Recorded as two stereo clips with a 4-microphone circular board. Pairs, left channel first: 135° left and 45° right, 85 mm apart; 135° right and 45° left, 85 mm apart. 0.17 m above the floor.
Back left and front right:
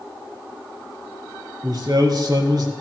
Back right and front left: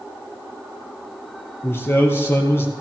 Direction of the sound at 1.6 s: 75° right.